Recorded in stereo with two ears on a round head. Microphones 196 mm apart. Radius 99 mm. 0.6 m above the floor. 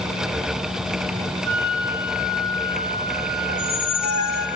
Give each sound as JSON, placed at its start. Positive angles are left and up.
{"t": 1.4, "sound": "a flute", "side_deg": -50, "distance_m": 8.5}
{"t": 3.5, "sound": "a squeak", "side_deg": 80, "distance_m": 2.0}